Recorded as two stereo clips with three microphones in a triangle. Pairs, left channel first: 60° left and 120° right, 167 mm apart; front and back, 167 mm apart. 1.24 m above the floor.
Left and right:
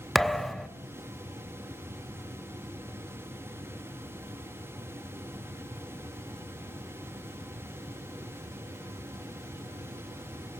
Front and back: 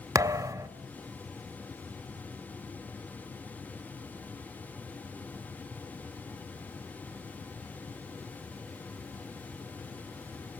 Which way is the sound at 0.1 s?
145° left.